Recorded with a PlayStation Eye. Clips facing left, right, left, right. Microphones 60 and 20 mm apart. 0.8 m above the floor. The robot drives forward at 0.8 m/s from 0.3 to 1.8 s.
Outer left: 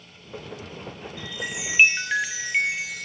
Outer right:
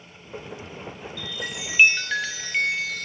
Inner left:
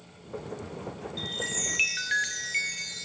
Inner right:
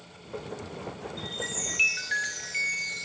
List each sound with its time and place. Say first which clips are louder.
1.2 s a chime: outer left 2 dB, inner left 3 dB; 25° left (ahead or behind), 0.7 m; by 3.0 s 15° left (ahead or behind), 1.0 m